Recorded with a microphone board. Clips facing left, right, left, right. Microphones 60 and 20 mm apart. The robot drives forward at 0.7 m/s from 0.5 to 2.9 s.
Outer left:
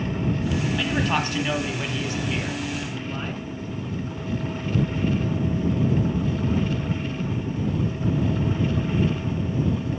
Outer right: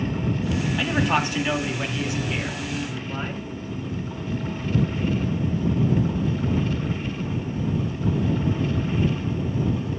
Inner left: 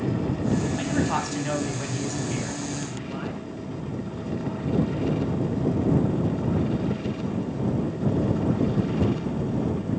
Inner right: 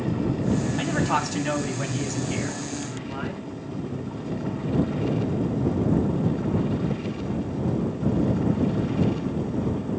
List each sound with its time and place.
0.8 s a man speaking: 10° right (ahead or behind), 1.8 m; by 3.4 s 5° right (ahead or behind), 3 m